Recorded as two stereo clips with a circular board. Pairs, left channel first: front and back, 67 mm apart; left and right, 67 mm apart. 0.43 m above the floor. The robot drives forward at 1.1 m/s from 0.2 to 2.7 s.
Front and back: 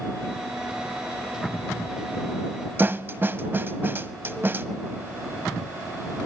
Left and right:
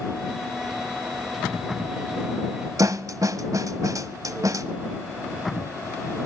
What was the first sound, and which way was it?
A snare drum, 125° right.